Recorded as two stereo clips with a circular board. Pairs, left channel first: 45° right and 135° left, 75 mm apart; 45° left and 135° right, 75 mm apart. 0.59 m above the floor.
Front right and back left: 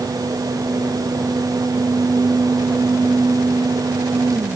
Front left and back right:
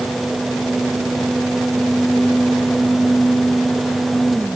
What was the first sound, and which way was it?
Only background noise.